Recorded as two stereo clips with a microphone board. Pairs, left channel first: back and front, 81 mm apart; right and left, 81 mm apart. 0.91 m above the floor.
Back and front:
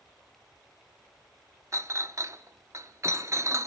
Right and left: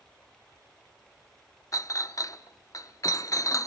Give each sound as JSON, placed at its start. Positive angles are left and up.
{"t": 1.7, "sound": "a clink", "azimuth_deg": -50, "distance_m": 0.7}